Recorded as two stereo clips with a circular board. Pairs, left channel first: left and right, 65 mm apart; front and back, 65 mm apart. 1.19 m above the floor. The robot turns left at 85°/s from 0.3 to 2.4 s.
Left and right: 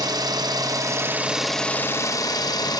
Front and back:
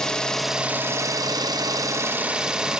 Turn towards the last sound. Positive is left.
turn(degrees=100)